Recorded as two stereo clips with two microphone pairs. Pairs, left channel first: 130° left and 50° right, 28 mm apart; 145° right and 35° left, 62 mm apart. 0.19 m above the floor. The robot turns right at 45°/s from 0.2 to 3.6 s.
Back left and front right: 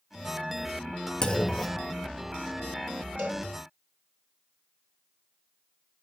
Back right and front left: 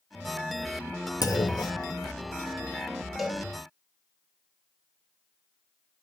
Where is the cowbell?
55° right, 4.5 m; by 3.5 s 45° right, 4.5 m.